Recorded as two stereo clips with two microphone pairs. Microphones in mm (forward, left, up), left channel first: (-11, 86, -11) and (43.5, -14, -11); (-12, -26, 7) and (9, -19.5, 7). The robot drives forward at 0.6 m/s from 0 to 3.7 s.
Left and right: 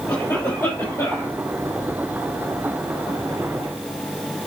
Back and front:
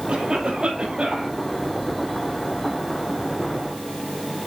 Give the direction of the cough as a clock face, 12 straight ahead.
10 o'clock.